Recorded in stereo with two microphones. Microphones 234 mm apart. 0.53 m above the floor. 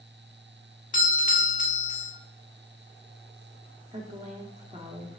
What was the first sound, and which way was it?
A doorbell, 35° left (ahead or behind).